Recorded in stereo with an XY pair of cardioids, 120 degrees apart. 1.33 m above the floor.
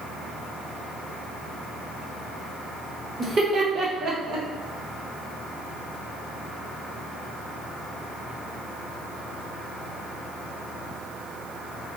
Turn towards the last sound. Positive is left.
turn(degrees=-80)